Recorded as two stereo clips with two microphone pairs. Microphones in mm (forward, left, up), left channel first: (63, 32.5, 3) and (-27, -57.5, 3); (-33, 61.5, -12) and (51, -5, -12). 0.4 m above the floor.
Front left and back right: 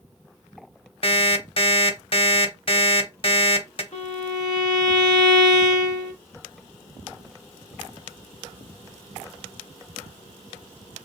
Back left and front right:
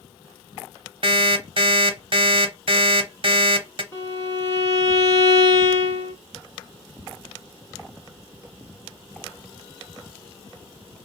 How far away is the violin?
About 1.0 m.